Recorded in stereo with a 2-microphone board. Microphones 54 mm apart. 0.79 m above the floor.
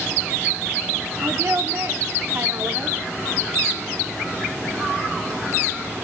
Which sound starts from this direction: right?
A woman speaking, at 1.2 s.